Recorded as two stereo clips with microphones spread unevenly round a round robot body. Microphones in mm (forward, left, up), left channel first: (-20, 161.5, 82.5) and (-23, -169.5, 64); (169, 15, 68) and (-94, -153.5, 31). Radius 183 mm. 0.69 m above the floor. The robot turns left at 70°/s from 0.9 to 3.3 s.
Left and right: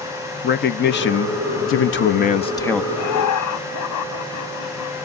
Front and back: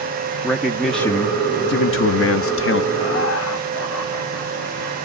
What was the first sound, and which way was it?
A man speaking, 130° left.